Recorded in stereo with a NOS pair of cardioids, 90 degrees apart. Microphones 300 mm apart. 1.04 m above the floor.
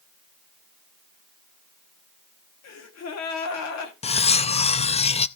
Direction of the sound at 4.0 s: 20° left.